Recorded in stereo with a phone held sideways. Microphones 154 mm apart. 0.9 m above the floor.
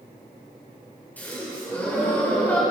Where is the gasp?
10° left (ahead or behind), 3 m.